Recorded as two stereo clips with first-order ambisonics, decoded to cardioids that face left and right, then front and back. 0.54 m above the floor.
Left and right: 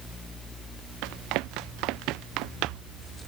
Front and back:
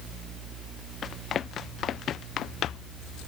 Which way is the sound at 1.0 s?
65° right.